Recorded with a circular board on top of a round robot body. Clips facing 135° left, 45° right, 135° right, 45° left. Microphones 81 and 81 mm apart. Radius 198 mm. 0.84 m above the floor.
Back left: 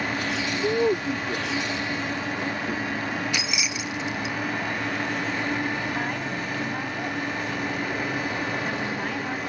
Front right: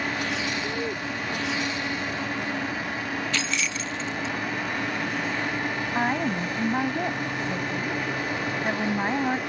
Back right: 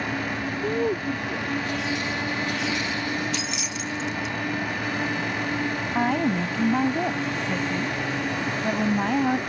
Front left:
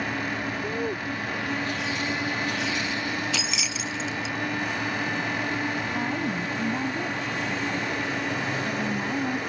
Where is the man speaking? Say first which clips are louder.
Back left 7 dB, back right 4 dB; 155° left; by 3.2 s 140° left.